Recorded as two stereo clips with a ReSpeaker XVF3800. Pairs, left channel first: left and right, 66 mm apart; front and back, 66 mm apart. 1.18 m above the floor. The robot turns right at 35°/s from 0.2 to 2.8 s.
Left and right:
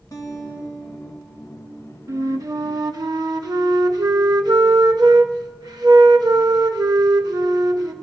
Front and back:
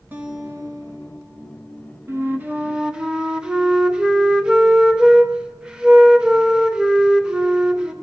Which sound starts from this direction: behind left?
A guitar, at 0.1 s.